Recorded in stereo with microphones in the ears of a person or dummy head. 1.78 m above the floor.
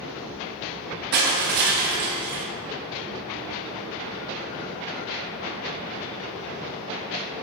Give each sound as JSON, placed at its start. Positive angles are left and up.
{"t": 1.1, "sound": "crushing", "side_deg": -50, "distance_m": 0.8}